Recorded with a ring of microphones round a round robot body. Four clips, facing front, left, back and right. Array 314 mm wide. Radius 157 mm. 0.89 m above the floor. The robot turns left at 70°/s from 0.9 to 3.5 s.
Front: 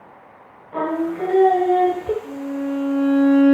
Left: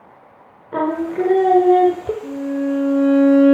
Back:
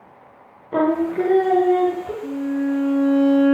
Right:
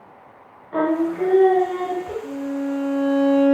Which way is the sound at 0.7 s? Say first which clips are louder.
Even, back 4 dB; 155° left.